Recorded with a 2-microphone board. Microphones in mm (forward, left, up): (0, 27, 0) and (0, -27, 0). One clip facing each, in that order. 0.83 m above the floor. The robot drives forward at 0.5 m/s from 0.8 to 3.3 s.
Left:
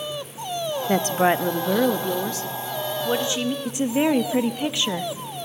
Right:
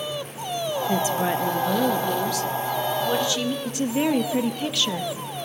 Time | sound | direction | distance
0.9 | a woman speaking | 55° left (ahead or behind) | 0.7 m
3.6 | a woman speaking | 20° left (ahead or behind) | 0.7 m